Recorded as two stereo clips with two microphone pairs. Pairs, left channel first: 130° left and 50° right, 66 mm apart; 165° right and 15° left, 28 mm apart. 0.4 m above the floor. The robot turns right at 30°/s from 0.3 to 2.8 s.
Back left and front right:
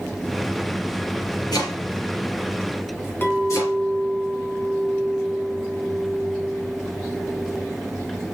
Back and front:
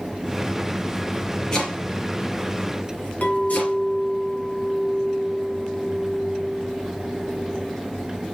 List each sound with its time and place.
1.5 s chopping: 130° left, 4 m; by 3.8 s 165° left, 4 m
3.2 s a clink: 175° right, 2.5 m